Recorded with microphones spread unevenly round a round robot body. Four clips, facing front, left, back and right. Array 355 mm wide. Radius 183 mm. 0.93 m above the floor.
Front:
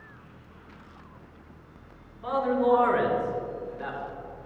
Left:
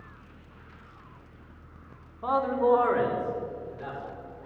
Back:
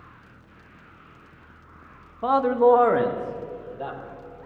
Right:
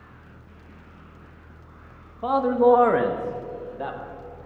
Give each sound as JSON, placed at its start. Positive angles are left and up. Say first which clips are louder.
{"t": 2.2, "sound": "a man speaking", "louder": "right 6 dB, back 6 dB", "azimuth_deg": -150, "distance_m": 1.0}